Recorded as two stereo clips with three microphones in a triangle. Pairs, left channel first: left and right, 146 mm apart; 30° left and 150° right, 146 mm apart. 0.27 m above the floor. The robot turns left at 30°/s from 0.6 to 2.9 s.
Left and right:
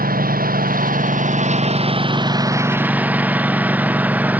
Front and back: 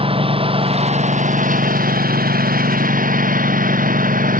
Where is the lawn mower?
100° right; by 4.4 s 170° right.